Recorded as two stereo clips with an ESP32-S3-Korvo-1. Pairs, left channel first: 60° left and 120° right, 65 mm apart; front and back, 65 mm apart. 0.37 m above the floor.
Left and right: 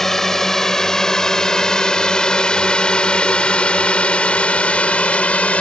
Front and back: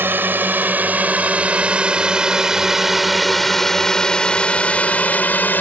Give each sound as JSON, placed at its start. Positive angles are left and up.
{"t": 0.0, "sound": "a drone", "azimuth_deg": 145}